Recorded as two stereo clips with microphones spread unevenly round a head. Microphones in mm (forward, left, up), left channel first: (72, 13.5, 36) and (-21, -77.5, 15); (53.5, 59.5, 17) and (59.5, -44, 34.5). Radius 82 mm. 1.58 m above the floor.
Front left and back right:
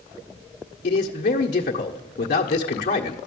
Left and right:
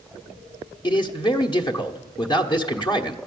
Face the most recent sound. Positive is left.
turn(degrees=50)